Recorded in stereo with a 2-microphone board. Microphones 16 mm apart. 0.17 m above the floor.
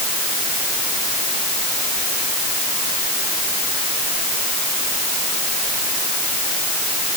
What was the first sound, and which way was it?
Only background noise.